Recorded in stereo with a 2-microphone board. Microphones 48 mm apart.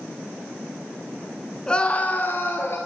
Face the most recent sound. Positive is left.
turn(degrees=55)  # may be behind; listen again after turning